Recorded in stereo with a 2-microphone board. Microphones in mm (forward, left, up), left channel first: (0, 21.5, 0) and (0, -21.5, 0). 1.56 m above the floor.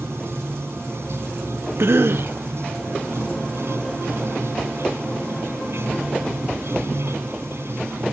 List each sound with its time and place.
0.0 s running water: 85° right
1.8 s a cough: 75° right (ahead or behind)